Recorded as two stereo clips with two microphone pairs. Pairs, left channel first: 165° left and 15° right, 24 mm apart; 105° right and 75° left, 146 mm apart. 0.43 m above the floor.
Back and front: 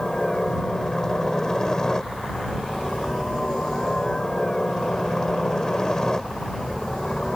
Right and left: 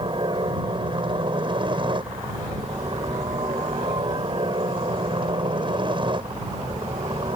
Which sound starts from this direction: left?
A helicopter, at 0.0 s.